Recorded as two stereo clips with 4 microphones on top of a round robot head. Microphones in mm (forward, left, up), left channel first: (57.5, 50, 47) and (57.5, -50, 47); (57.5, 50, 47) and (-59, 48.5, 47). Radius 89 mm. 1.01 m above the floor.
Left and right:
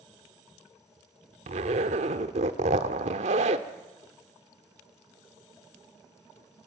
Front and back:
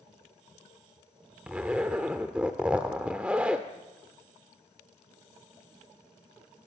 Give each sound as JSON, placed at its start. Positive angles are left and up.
{"t": 1.5, "sound": "a zipper", "azimuth_deg": -95, "distance_m": 1.1}